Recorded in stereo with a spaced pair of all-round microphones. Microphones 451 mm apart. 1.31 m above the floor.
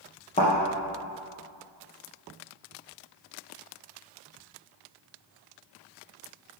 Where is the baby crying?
No baby crying in this recording.